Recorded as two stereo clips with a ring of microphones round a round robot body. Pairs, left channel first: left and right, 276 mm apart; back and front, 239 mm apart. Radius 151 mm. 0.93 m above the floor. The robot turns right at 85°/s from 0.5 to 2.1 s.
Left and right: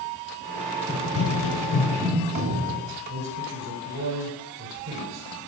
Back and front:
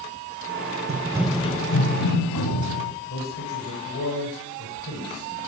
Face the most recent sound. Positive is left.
turn(degrees=-140)